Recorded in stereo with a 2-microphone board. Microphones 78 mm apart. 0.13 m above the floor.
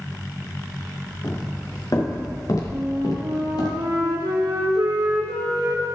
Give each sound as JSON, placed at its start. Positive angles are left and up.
{"t": 1.2, "sound": "footsteps", "side_deg": 40, "distance_m": 4.5}
{"t": 2.7, "sound": "a flute", "side_deg": -70, "distance_m": 1.7}